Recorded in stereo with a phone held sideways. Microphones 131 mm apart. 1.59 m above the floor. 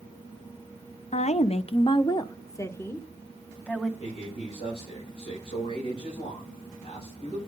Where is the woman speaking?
60° left (ahead or behind), 0.7 m; by 3.9 s 5° left (ahead or behind), 1.5 m.